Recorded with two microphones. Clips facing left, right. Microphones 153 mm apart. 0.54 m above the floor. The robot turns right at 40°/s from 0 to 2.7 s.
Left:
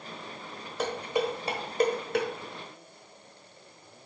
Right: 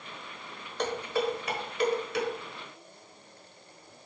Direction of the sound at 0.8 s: 5° left (ahead or behind).